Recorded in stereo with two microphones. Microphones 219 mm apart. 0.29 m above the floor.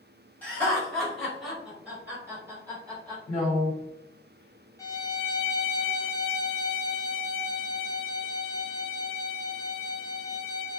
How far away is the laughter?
About 1.7 m.